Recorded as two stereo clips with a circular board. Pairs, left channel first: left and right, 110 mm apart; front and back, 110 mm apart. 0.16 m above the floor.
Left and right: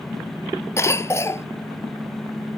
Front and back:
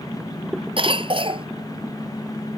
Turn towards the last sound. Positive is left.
turn(degrees=150)